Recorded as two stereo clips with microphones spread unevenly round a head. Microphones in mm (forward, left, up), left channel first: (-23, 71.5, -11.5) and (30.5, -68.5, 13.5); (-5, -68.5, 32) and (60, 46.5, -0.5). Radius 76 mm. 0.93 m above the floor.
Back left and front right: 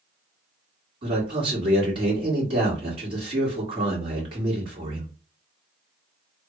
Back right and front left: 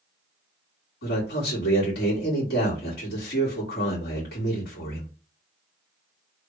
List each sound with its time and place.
1.0 s a man speaking: 130° right, 2 m